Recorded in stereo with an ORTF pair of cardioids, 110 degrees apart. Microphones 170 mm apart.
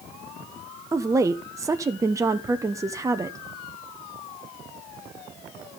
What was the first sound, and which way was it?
A woman speaking, 20° right.